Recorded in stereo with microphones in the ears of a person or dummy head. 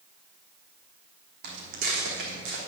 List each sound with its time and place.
1.4 s footsteps: 55° right (ahead or behind), 3 m; by 2.6 s 60° right (ahead or behind), 4 m